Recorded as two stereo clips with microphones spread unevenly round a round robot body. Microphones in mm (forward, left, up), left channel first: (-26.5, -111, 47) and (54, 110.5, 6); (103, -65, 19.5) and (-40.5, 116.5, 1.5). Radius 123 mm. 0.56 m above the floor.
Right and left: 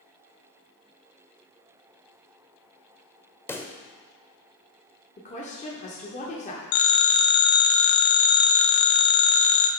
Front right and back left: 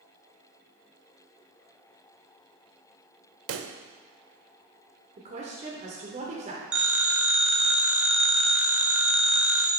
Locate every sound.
3.5 s a pop: 170° left, 0.6 m
5.2 s a woman speaking: 175° right, 1.2 m
6.7 s a phone ringing: 145° right, 0.8 m